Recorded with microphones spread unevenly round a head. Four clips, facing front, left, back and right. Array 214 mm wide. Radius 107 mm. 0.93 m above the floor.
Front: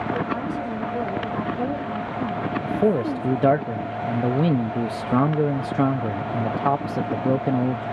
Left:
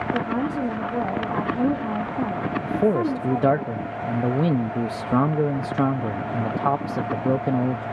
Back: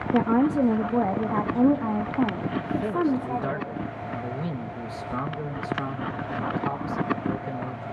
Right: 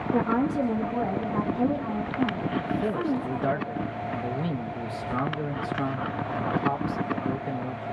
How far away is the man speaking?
About 0.7 m.